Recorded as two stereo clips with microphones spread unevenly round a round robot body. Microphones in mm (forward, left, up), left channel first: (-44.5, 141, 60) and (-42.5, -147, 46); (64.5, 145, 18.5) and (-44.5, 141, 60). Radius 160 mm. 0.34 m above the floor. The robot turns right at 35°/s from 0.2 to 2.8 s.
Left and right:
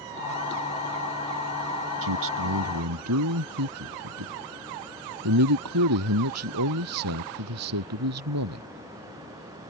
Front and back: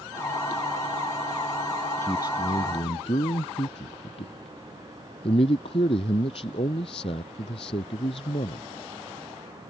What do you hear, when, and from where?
2.0 s a man speaking: 80° right; by 8.7 s 55° right